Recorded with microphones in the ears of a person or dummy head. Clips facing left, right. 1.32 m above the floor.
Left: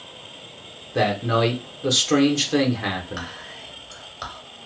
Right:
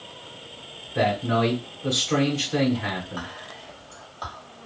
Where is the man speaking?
55° left (ahead or behind), 1.1 m.